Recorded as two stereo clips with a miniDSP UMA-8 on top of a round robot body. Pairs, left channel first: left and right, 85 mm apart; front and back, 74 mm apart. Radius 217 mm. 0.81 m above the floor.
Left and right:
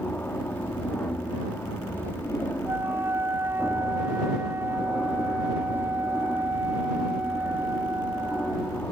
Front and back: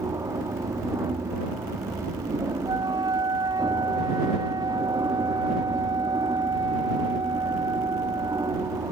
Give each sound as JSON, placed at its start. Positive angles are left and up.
{"t": 0.0, "sound": "an aircraft", "azimuth_deg": 155}
{"t": 2.6, "sound": "a flute", "azimuth_deg": -155}